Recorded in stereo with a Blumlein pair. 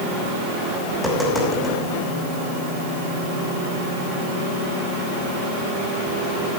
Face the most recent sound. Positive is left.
turn(degrees=0)